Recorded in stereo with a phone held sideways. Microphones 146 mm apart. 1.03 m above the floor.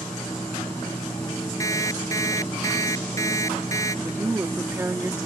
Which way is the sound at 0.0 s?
10° left (ahead or behind).